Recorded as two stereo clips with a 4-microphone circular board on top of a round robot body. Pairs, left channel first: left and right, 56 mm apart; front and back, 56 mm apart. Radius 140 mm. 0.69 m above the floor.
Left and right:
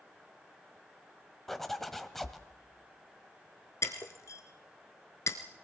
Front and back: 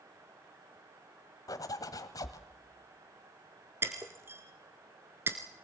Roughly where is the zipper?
Ahead.